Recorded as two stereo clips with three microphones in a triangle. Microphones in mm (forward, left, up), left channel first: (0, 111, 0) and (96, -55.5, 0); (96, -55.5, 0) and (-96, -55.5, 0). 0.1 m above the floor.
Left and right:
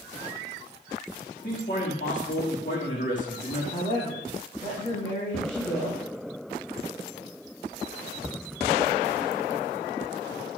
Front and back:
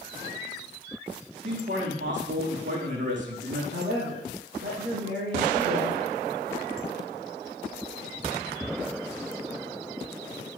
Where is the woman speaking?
175° right, 5 m.